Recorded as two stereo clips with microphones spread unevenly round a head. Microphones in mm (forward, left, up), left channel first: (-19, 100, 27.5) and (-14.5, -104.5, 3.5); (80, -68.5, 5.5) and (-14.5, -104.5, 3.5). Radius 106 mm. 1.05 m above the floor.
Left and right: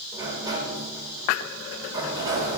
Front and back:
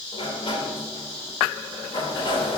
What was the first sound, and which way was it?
A sliding door, 15° right.